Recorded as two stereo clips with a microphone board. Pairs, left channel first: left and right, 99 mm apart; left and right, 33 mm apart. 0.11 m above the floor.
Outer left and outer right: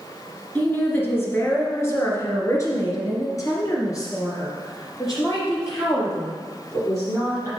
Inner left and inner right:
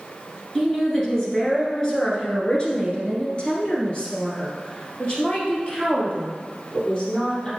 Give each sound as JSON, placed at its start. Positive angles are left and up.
{"t": 0.6, "sound": "a woman speaking", "side_deg": 15, "distance_m": 1.7}